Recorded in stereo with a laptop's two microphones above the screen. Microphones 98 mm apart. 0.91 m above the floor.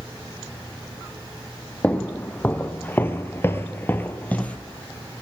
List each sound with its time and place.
1.8 s footsteps: 15° left (ahead or behind), 2.0 m